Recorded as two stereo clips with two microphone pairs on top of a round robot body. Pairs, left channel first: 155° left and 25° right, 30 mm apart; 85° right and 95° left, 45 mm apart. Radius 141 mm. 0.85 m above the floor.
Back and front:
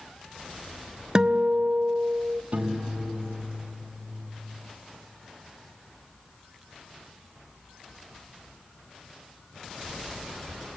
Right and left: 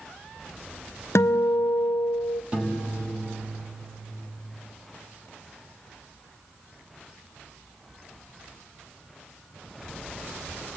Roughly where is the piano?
Ahead.